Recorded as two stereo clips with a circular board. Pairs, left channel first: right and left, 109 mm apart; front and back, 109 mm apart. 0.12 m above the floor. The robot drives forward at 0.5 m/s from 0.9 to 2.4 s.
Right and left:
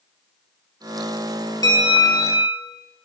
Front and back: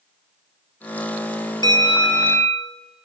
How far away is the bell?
About 1.5 m.